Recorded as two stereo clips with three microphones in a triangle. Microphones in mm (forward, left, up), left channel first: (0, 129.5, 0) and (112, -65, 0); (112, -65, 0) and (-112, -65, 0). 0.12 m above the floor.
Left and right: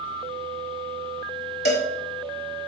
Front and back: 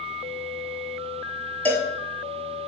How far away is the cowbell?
About 0.5 m.